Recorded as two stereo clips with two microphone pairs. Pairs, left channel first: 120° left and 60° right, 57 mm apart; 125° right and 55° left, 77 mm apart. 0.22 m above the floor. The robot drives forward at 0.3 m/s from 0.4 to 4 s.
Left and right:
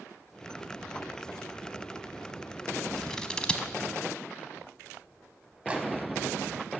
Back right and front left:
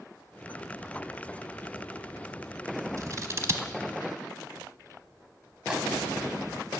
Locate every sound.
3.0 s scissors: 45° left, 0.7 m; by 3.7 s 70° left, 0.6 m
5.7 s a microwave: 10° right, 1.3 m